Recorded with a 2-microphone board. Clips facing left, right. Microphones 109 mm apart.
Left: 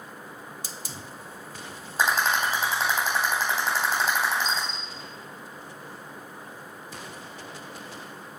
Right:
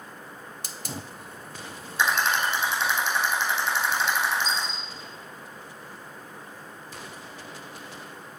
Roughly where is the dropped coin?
Left.